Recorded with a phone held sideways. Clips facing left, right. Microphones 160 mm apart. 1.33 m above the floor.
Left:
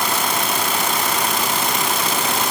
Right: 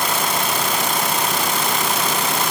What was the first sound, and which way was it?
Only background noise.